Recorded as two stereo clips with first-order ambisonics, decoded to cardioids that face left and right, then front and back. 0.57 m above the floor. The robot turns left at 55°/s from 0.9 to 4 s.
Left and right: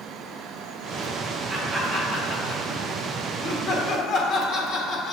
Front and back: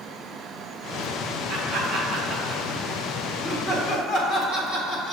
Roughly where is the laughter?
Behind.